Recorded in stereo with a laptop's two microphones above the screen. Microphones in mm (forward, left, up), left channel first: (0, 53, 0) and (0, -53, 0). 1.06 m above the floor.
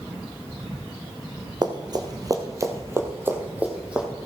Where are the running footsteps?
45° right (ahead or behind), 1.4 m; by 4.1 s 10° right (ahead or behind), 1.9 m.